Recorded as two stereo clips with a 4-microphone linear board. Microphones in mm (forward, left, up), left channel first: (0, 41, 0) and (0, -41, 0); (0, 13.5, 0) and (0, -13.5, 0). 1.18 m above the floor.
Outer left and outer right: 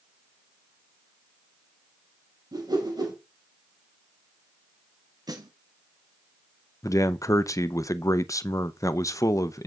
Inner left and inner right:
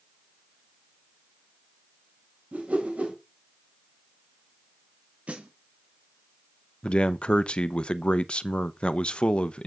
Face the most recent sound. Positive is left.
turn(degrees=40)  # may be behind; listen again after turning